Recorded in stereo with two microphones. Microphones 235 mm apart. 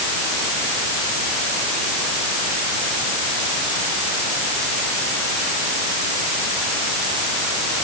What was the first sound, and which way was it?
Only background noise.